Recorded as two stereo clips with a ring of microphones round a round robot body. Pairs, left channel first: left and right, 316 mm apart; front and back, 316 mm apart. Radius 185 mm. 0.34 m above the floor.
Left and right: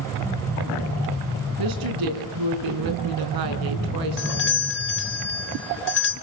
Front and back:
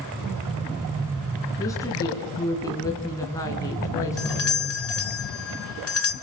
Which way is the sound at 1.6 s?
80° right.